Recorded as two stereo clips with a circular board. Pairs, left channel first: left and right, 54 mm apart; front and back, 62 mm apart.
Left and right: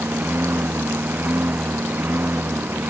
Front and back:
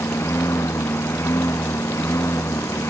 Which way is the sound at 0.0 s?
40° right.